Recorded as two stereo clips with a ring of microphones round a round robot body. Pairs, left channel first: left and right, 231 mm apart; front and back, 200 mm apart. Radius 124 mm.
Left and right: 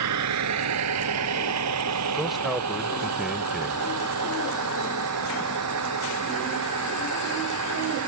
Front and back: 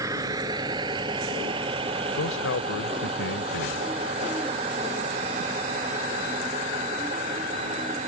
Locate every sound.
0.0 s a vehicle: 100° right; by 8.1 s 115° right
2.2 s a man speaking: straight ahead